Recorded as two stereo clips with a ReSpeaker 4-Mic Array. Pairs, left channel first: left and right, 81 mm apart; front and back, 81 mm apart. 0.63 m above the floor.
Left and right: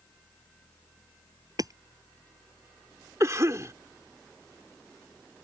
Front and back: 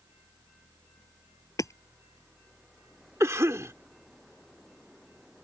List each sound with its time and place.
1.6 s hammering: 50° right
3.2 s a cough: 130° right